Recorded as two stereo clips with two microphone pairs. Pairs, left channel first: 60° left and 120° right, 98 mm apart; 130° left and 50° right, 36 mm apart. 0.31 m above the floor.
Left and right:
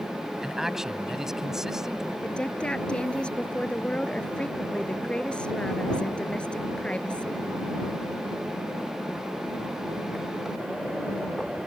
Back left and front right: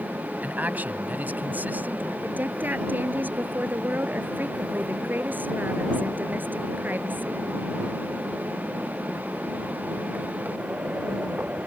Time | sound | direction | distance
0.4 | a man speaking | 35° right | ?
2.2 | a woman speaking | 20° right | ?